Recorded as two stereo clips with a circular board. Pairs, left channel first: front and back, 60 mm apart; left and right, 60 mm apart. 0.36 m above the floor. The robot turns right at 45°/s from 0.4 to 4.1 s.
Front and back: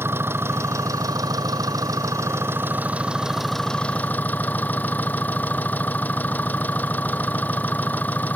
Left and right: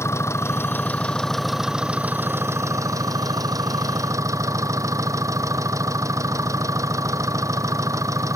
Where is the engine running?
130° left; by 8.4 s 60° right.